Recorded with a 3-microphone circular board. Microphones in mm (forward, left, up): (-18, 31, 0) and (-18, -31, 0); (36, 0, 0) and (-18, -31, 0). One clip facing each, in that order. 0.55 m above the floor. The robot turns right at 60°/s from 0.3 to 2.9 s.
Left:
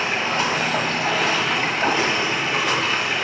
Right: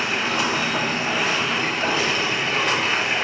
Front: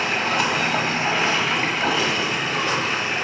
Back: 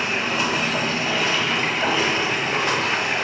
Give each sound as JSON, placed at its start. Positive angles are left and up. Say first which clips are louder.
{"t": 0.0, "sound": "running water", "louder": "left 1 dB, front 1 dB", "azimuth_deg": 40, "distance_m": 1.3}